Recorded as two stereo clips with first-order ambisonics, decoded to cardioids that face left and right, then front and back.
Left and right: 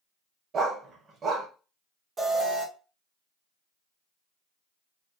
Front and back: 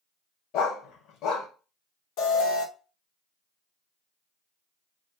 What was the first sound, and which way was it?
A dog barking, 30° right.